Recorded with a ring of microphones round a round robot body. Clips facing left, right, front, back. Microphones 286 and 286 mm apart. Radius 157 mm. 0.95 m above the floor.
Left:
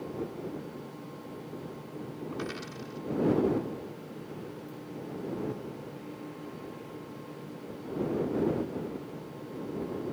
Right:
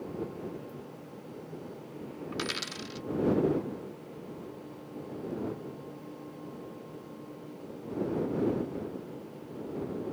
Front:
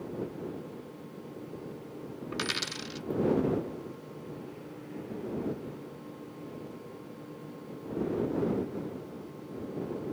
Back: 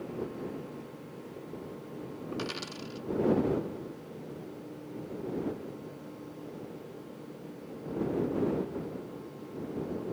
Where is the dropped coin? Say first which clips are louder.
Right 1 dB, back 1 dB; 55° right.